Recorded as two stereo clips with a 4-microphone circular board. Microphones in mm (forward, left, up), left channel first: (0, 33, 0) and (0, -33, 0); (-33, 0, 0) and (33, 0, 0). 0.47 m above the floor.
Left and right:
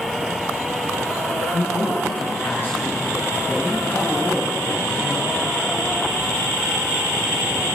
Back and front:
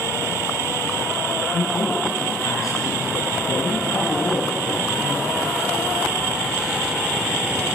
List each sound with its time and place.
1.5 s a man speaking: 145° left, 6 m